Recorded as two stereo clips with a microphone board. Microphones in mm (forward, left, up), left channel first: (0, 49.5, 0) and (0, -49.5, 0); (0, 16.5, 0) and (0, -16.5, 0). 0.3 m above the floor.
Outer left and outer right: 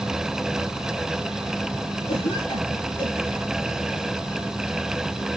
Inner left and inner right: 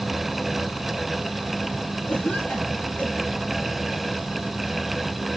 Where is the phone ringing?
No phone ringing in this recording.